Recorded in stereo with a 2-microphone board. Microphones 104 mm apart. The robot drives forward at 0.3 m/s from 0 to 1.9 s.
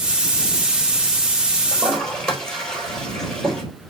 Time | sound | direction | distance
1.7 | a toilet flushing | 5° left (ahead or behind) | 4 m